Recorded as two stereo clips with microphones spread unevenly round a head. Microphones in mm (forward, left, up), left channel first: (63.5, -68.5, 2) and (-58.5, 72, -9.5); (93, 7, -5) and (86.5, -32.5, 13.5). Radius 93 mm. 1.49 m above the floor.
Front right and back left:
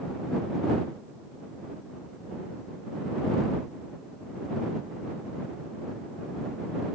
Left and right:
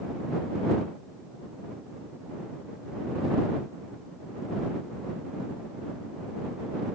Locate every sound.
Only background noise.